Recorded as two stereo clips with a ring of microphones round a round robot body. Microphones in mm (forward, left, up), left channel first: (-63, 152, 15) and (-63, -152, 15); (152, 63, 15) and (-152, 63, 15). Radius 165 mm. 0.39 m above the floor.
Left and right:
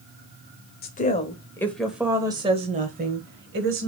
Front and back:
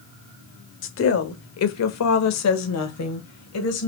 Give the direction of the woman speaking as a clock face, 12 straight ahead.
11 o'clock.